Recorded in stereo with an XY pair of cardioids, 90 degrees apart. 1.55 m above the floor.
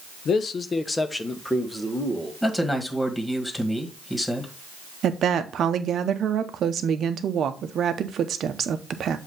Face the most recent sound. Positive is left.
turn(degrees=-65)